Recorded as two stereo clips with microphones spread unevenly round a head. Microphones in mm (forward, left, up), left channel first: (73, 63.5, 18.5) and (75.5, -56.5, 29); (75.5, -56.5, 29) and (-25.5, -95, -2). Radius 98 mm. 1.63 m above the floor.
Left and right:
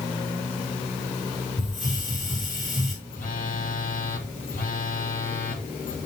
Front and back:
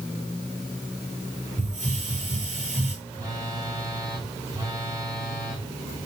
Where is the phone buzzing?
125° left, 4 m.